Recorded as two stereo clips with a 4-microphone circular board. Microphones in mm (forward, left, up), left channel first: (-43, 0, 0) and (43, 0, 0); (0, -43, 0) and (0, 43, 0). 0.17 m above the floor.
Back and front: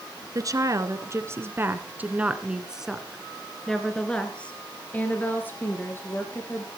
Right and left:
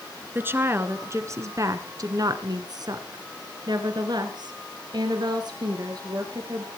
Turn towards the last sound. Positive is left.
turn(degrees=125)